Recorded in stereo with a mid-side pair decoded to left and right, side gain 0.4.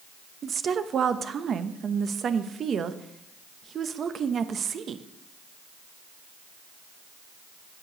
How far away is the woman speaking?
About 0.9 m.